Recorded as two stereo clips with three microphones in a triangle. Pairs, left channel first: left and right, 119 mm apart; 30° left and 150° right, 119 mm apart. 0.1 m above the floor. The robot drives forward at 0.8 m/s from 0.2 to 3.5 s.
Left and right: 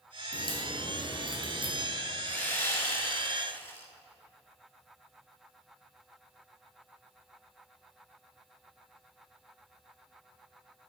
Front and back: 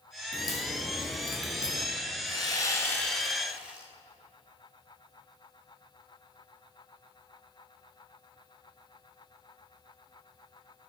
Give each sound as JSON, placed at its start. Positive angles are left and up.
{"t": 0.3, "sound": "a crack", "azimuth_deg": 65, "distance_m": 1.8}
{"t": 2.2, "sound": "sawing", "azimuth_deg": 20, "distance_m": 1.0}